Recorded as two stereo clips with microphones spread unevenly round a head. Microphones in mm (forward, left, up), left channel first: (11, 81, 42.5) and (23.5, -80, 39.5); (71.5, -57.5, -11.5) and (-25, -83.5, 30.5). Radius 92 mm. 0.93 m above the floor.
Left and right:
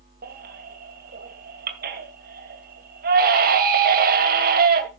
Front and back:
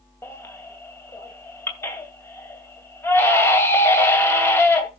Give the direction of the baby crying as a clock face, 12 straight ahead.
2 o'clock.